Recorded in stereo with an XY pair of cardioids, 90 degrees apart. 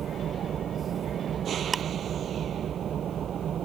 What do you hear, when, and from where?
0.0 s an engine running: 65° right
1.7 s ticking: 35° right